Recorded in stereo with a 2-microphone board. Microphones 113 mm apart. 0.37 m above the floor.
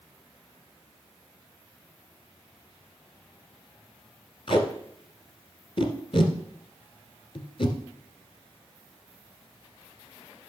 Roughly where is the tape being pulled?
Left.